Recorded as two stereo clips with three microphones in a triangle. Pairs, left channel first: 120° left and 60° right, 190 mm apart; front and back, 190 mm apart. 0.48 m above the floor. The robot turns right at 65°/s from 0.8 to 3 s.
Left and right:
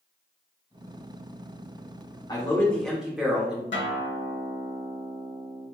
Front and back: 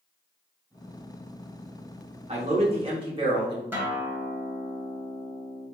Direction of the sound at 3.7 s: 100° left.